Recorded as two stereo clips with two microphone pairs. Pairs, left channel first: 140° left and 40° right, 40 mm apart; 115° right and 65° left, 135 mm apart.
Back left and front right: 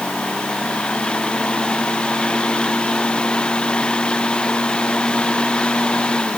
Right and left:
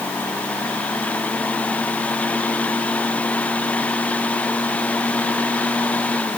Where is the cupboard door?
No cupboard door in this recording.